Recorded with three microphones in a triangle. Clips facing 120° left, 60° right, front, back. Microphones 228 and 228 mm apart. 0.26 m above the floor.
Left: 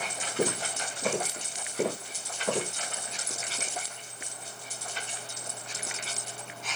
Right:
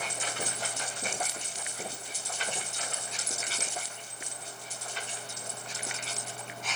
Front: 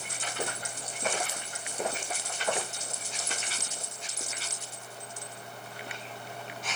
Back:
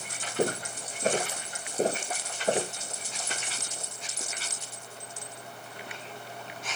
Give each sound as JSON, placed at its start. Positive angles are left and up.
{"t": 0.4, "sound": "footsteps", "azimuth_deg": 130}